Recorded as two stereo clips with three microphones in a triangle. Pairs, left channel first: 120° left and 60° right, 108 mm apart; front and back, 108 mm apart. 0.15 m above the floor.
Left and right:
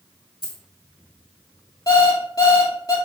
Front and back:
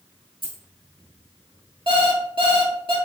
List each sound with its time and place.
0.4 s a dropped coin: 155° left, 1.6 m
1.9 s an alarm clock: 165° left, 1.3 m